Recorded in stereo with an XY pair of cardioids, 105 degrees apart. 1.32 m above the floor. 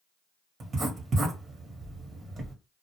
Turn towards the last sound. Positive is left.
turn(degrees=-45)